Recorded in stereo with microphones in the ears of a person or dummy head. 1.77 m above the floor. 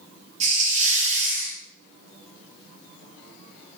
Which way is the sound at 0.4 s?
35° right (ahead or behind).